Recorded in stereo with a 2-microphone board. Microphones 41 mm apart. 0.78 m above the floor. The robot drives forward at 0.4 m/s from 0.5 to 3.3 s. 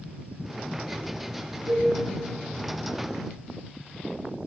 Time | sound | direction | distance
1.7 | a cowbell | 85° right | 5 m